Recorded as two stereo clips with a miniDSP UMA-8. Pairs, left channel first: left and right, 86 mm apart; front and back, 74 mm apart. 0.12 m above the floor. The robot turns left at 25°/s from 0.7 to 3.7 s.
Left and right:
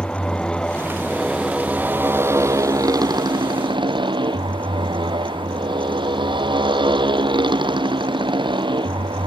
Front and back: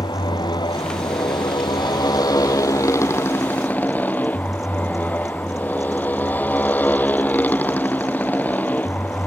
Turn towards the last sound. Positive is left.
turn(degrees=-65)